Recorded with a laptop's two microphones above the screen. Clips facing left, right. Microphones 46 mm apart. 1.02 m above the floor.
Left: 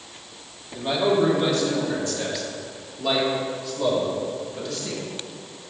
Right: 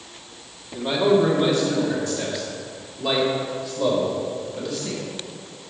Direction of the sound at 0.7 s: 5° right (ahead or behind).